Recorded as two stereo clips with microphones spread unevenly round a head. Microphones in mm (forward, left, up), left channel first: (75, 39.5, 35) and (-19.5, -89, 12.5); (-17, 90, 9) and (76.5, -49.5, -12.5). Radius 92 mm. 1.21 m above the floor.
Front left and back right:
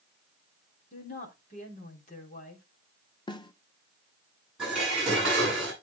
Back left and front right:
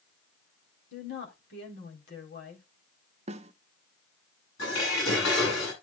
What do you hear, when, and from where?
0.9 s a woman speaking: 105° left, 4 m
3.3 s a snare drum: 10° right, 1.3 m
4.6 s dishes clattering: 145° left, 9.5 m